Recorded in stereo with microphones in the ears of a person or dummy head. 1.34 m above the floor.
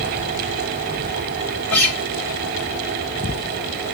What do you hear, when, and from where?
1.7 s a guitar: 10° left (ahead or behind), 1.8 m